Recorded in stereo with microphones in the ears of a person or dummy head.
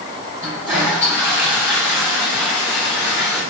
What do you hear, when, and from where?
0.4 s a toilet flushing: 10° right (ahead or behind), 4 m